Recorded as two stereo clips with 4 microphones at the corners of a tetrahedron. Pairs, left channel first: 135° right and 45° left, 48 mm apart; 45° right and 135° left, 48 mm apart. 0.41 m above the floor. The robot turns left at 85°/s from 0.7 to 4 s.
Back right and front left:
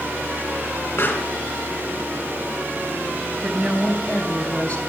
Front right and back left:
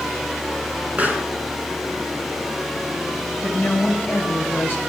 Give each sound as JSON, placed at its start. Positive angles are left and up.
{"t": 1.0, "sound": "a pop", "azimuth_deg": -165, "distance_m": 2.5}
{"t": 3.4, "sound": "a woman speaking", "azimuth_deg": -30, "distance_m": 3.5}